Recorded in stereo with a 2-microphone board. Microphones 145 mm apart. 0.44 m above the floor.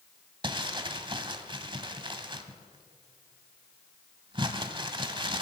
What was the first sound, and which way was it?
Crumpling, 30° right (ahead or behind).